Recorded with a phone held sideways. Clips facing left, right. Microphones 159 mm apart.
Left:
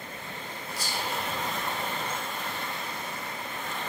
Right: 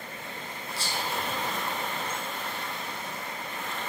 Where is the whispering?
30° right (ahead or behind), 0.9 m.